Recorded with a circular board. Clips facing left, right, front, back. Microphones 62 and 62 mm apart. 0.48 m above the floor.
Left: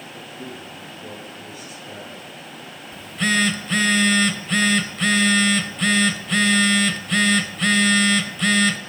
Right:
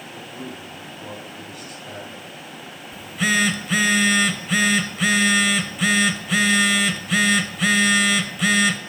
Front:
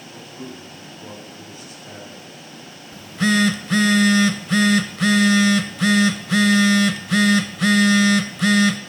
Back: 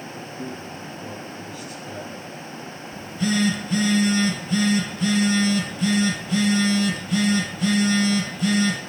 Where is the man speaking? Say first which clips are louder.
Right 1 dB, even; 55° right, 3 m.